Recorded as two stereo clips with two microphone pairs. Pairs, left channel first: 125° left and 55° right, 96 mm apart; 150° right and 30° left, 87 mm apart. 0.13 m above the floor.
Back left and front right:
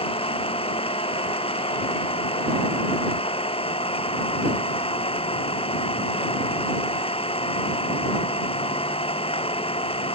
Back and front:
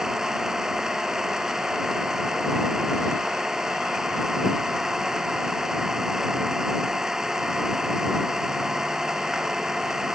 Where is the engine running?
115° left.